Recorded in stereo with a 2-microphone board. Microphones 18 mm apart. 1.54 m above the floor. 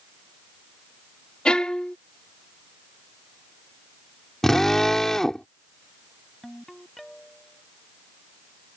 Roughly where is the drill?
Centre.